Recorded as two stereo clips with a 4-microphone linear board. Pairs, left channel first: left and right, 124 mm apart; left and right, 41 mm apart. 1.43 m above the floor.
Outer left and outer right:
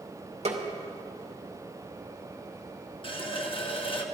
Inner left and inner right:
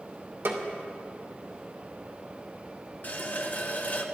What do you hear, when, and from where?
0.5 s a snare drum: 60° right (ahead or behind), 2 m
3.0 s a running tap: 45° left (ahead or behind), 1.1 m